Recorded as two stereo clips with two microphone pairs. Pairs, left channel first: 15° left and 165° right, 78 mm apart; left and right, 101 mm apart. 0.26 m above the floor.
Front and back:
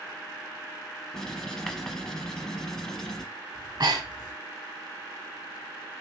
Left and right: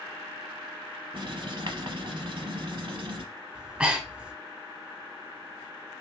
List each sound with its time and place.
1.1 s writing: 70° right, 0.6 m
3.5 s breathing: 170° right, 0.6 m